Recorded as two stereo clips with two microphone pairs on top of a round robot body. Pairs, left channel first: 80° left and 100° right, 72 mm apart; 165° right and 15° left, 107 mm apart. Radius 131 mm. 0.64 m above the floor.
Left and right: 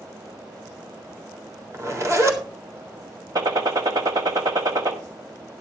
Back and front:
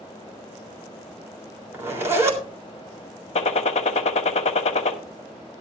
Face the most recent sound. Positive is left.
turn(degrees=-140)